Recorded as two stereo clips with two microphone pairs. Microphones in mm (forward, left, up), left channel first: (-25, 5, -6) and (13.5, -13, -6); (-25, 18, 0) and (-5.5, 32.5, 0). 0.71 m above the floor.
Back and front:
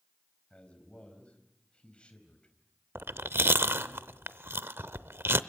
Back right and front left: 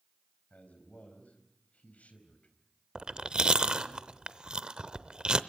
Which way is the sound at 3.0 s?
15° right.